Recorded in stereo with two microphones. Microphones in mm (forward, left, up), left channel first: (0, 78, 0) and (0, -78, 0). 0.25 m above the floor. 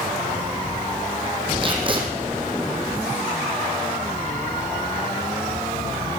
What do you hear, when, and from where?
1.6 s tape being pulled: 35° right (ahead or behind), 2.5 m